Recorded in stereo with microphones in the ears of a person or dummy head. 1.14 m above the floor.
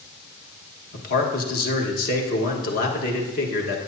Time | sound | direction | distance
0.9 | a man speaking | 50° left (ahead or behind) | 1.3 m